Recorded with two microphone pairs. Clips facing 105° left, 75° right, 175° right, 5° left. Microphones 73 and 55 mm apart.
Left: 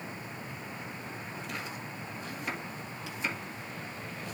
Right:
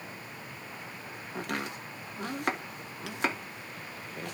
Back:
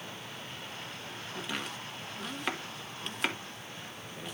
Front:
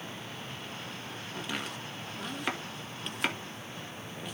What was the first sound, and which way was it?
Chopping, 85° right.